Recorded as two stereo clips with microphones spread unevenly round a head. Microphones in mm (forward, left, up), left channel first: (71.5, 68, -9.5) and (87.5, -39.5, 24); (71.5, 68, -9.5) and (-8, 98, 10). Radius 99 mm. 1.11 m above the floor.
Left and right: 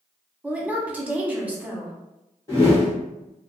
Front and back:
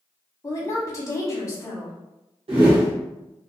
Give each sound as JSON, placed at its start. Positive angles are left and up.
{"t": 0.4, "sound": "a woman speaking", "azimuth_deg": 5, "distance_m": 0.9}
{"t": 2.5, "sound": "a whoosh", "azimuth_deg": 165, "distance_m": 0.9}